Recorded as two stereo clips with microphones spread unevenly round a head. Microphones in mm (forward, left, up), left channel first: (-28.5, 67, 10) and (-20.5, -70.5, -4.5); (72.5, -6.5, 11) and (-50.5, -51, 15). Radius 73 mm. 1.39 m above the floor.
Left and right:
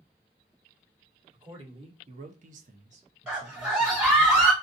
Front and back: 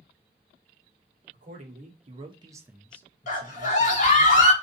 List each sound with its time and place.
1.3 s a man speaking: 140° right, 1.3 m; by 4.3 s 5° right, 1.3 m
3.3 s a scream: 5° right, 1.8 m